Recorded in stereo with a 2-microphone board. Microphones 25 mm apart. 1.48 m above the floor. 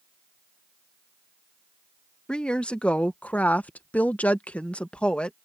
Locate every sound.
2.3 s a woman speaking: 35° left (ahead or behind); by 5.3 s 45° left (ahead or behind)